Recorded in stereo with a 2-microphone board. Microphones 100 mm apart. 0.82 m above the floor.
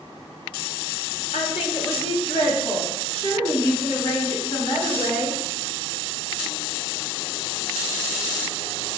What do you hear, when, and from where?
1.3 s a woman speaking: 75° left (ahead or behind), 2 m; by 5.4 s 80° left, 8.5 m